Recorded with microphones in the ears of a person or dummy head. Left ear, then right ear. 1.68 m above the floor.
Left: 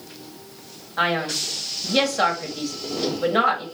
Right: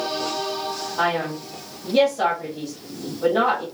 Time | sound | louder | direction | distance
1.0 | a man speaking | left 2 dB | 50° left (ahead or behind) | 1.2 m